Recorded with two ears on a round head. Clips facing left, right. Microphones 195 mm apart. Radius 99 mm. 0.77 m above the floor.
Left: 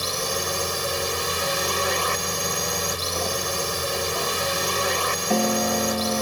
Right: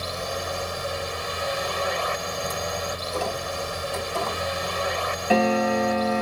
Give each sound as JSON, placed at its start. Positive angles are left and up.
{"t": 0.0, "sound": "a drone", "side_deg": 55}